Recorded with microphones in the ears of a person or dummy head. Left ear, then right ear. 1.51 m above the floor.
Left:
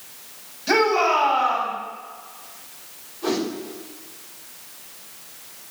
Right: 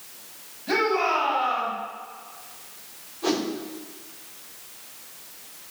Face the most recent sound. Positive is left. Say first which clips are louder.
# left 1 dB
turn(degrees=-10)  # may be behind; listen again after turning